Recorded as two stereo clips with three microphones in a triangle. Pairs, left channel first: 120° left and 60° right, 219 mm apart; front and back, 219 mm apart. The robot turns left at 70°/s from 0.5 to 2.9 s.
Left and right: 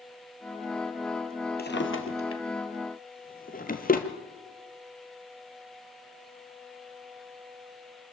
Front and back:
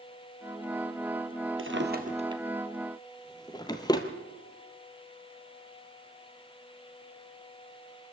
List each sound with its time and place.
1.6 s a drawer: 160° left, 1.7 m; by 4.1 s 70° left, 1.7 m